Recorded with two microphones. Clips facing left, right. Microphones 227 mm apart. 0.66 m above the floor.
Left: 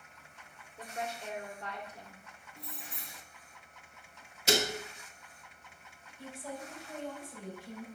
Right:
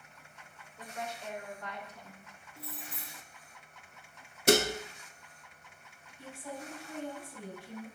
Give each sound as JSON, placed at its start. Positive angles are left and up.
{"t": 0.8, "sound": "a woman speaking", "side_deg": 30, "distance_m": 3.0}
{"t": 2.6, "sound": "keys jangling", "side_deg": -5, "distance_m": 0.6}
{"t": 4.5, "sound": "dishes clattering", "side_deg": -60, "distance_m": 0.8}
{"t": 6.2, "sound": "a woman speaking", "side_deg": 45, "distance_m": 3.5}